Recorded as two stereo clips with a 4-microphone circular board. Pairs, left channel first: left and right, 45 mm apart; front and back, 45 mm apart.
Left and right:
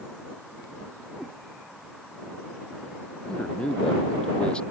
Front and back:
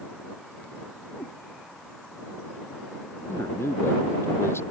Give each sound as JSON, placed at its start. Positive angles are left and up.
{"t": 1.2, "sound": "a cat meowing", "azimuth_deg": 40}
{"t": 3.3, "sound": "a man speaking", "azimuth_deg": 25}